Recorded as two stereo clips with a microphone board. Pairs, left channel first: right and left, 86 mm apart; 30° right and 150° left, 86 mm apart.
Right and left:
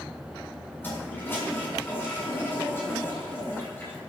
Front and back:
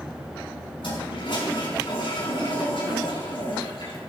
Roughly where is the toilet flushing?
Ahead right.